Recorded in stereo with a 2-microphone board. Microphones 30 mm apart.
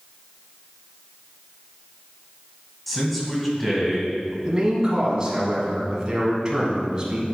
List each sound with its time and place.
2.9 s a man speaking: 5° left (ahead or behind), 2 m
4.5 s a man speaking: 20° right (ahead or behind), 1.7 m